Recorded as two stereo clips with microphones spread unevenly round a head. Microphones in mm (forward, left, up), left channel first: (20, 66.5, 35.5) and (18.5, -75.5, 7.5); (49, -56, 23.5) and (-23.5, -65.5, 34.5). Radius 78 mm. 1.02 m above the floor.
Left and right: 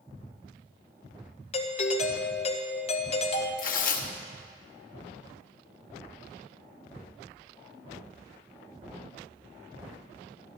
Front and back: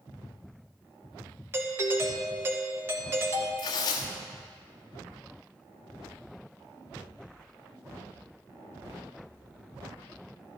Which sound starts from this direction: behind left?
A doorbell, at 1.5 s.